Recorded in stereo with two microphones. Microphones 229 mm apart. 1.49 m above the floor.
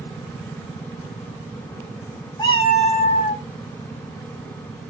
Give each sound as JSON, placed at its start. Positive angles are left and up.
{"t": 2.4, "sound": "a cat meowing", "side_deg": 20, "distance_m": 1.0}